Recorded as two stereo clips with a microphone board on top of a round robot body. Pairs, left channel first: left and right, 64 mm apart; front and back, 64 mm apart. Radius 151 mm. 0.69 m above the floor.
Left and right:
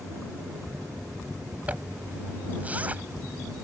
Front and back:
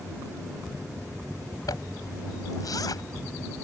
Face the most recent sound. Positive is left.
turn(degrees=-25)